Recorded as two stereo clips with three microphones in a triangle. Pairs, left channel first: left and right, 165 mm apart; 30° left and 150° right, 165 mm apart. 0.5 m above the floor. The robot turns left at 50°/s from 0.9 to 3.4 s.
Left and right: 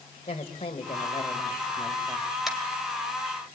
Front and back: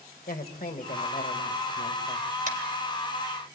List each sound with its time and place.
0.3 s a woman speaking: 45° left, 1.8 m; by 2.3 s 25° right, 1.8 m
2.5 s tapping: 175° right, 2.5 m; by 2.6 s 175° left, 2.5 m